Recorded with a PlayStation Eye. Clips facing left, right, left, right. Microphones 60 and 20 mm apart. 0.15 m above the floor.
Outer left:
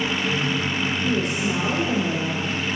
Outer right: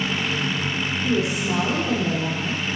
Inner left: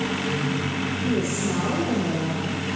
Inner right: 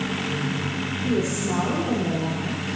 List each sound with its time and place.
1.0 s a woman speaking: 10° right (ahead or behind), 6.5 m